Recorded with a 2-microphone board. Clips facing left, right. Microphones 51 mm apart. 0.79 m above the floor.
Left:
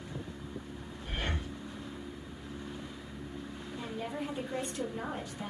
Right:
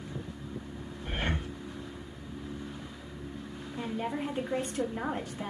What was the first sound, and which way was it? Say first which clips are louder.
Breathing: right 4 dB; 35° right (ahead or behind).